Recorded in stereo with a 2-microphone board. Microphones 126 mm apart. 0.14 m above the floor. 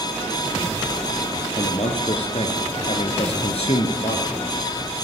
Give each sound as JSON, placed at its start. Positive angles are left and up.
{"t": 1.6, "sound": "a man speaking", "side_deg": 55, "distance_m": 2.0}